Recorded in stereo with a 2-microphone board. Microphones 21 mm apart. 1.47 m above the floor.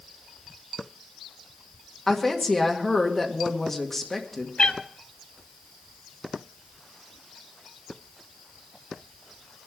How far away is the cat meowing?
About 1.4 m.